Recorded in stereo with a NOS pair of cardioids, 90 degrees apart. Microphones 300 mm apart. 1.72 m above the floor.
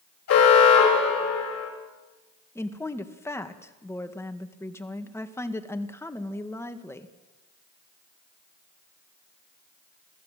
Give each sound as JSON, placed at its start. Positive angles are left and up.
{"t": 0.3, "sound": "an alarm", "azimuth_deg": 60, "distance_m": 6.0}
{"t": 2.5, "sound": "a woman speaking", "azimuth_deg": 10, "distance_m": 1.9}